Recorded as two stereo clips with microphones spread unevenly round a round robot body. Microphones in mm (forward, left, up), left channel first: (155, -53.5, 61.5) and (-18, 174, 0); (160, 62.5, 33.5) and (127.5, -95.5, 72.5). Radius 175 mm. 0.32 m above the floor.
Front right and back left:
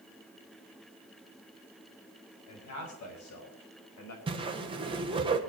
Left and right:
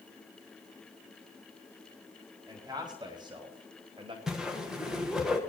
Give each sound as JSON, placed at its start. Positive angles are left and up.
{"t": 2.5, "sound": "a man speaking", "azimuth_deg": -30, "distance_m": 3.5}
{"t": 4.3, "sound": "a whoosh", "azimuth_deg": 150, "distance_m": 1.3}